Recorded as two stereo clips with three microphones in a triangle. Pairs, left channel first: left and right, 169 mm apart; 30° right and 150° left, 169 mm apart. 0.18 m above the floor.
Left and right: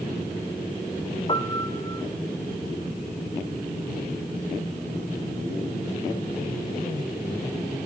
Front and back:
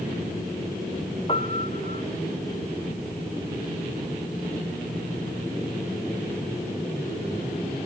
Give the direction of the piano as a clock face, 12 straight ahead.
11 o'clock.